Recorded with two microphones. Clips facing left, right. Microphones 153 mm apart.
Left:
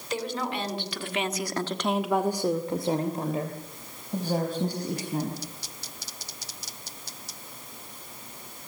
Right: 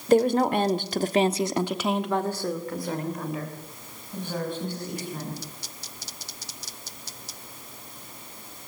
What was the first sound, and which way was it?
A woman speaking, 50° right (ahead or behind).